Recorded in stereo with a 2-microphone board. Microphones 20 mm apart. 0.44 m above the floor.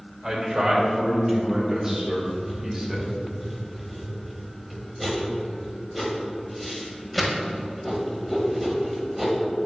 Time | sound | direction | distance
0.2 | a man speaking | 35° right (ahead or behind) | 2 m
2.1 | writing | 5° right (ahead or behind) | 1.0 m